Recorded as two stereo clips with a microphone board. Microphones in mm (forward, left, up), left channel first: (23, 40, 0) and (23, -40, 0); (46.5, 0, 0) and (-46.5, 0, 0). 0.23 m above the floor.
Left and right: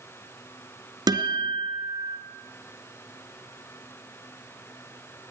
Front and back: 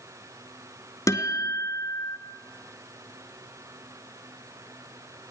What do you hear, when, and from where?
1.1 s a guitar: 55° right, 2 m